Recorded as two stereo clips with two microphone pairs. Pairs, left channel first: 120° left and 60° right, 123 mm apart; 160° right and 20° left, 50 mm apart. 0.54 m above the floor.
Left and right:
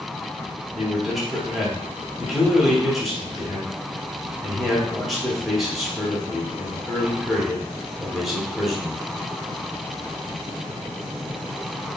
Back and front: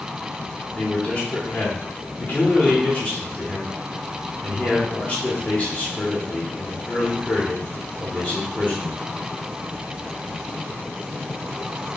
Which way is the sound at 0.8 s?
155° right.